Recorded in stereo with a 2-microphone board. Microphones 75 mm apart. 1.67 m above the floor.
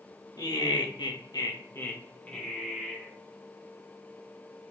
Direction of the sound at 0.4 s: 60° left (ahead or behind).